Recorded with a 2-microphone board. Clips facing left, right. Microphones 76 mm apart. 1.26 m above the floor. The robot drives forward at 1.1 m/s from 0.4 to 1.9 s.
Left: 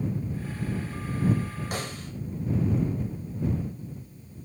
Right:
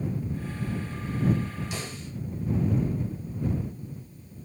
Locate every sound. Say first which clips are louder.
1.7 s a snare drum: left 2 dB; 55° left (ahead or behind), 6 m